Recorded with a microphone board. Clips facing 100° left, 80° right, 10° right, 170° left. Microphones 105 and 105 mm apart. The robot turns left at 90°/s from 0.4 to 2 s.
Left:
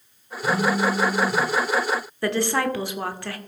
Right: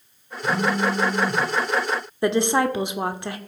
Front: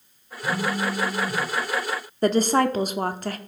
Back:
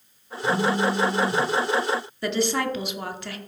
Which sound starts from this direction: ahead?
A woman speaking, at 2.2 s.